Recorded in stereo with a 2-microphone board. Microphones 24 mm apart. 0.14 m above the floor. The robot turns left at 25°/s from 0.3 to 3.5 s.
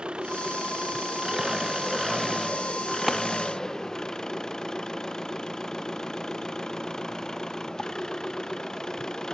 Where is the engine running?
130° right; by 9.3 s 150° left.